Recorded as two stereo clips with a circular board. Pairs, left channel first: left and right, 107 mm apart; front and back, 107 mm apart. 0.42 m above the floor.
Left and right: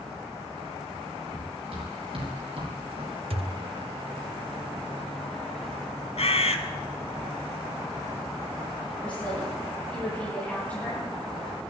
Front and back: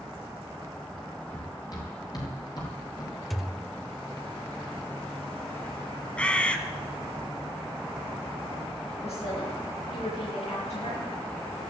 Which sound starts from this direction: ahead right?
Running footsteps, at 1.3 s.